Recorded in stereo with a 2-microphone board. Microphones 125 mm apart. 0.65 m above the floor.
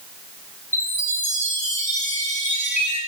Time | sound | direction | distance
0.7 | a chime | 80° left | 4 m